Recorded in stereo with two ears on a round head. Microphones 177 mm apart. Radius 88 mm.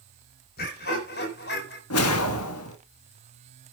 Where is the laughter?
50° left (ahead or behind), 4.5 m; by 1.8 s 60° left (ahead or behind), 4 m.